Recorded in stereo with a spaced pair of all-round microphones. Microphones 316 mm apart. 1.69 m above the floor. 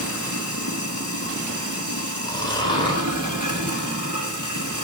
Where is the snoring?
15° left (ahead or behind), 4 m.